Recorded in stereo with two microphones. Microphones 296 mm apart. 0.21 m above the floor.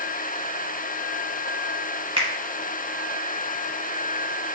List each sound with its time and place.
2.2 s a finger snap: 20° right (ahead or behind), 0.9 m